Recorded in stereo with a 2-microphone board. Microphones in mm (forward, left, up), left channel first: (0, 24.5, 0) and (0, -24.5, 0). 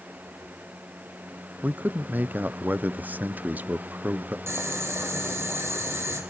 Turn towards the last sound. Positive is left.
turn(degrees=-65)  # may be behind; listen again after turning